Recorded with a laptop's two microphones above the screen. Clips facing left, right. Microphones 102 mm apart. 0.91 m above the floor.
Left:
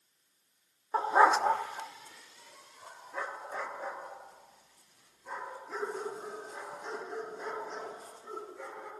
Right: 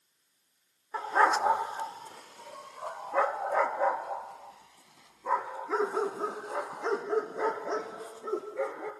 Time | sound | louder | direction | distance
0.9 | a dog barking | left 1 dB | 30° left (ahead or behind) | 0.6 m